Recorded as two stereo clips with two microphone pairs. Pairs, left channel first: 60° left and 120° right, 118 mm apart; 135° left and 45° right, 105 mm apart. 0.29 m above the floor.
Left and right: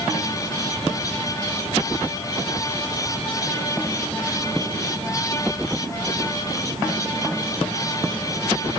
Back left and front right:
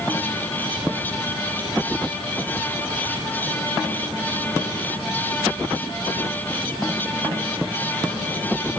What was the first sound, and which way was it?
Only background noise.